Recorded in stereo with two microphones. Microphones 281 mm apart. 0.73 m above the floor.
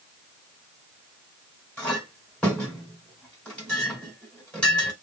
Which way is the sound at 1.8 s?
5° left (ahead or behind).